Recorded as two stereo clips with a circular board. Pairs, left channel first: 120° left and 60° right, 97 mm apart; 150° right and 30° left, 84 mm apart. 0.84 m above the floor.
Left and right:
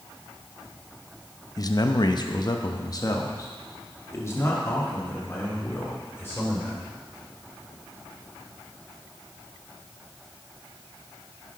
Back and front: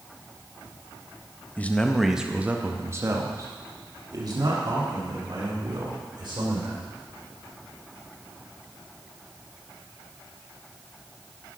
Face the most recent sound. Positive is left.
turn(degrees=50)